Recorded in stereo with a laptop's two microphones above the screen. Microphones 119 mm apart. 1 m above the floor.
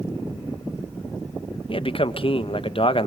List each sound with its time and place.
1.7 s a man speaking: 50° left (ahead or behind), 1.1 m